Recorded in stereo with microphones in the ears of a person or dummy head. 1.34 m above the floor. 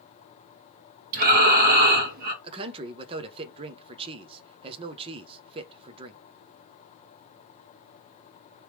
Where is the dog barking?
I don't hear a dog barking.